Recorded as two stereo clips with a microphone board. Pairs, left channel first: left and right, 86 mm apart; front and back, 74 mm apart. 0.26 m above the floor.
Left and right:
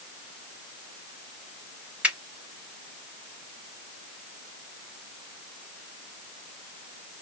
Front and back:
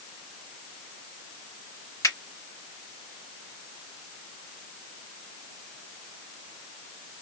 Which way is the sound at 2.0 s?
20° right.